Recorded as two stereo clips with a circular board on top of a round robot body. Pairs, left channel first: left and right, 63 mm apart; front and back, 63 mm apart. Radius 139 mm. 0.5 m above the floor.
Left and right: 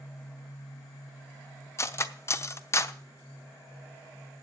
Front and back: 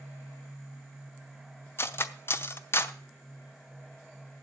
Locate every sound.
1.8 s cutlery clinking: 50° left, 0.8 m